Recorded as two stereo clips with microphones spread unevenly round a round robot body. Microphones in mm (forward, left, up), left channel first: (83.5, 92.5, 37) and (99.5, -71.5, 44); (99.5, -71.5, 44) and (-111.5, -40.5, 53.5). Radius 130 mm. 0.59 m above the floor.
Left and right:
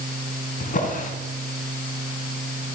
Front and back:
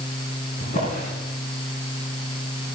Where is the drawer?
55° left, 2.5 m.